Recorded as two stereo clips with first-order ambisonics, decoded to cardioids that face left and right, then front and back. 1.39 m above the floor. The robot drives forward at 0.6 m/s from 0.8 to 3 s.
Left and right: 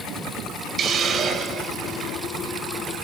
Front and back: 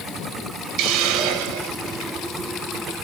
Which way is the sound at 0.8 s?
155° right.